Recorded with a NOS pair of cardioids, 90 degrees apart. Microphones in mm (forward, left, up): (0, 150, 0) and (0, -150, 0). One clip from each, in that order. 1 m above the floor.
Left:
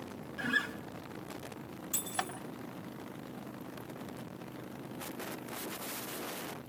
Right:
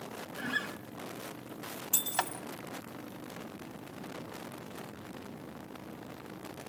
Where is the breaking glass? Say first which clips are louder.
Right 4 dB; 45° right, 2.5 m.